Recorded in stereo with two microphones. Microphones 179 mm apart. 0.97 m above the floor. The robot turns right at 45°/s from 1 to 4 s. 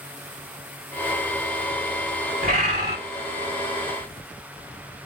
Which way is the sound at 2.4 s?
60° right (ahead or behind).